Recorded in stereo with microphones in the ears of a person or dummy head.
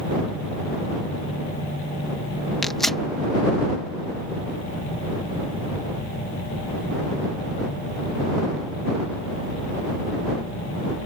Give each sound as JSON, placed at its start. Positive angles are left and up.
{"t": 2.6, "sound": "tearing paper", "side_deg": 10}